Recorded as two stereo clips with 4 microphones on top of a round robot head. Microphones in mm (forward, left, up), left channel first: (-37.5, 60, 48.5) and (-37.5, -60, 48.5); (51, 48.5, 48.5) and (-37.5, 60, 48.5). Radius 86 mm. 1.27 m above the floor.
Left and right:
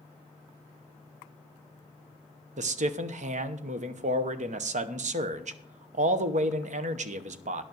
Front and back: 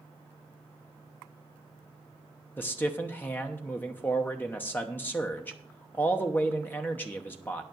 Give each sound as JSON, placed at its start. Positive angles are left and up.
{"t": 2.6, "sound": "a man speaking", "azimuth_deg": -80, "distance_m": 0.9}